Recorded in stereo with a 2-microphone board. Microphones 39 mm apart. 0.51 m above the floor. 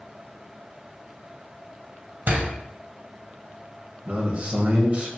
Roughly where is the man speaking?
Right.